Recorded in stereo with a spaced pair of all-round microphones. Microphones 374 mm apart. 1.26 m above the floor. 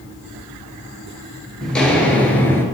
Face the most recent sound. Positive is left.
turn(degrees=5)  # may be behind; listen again after turning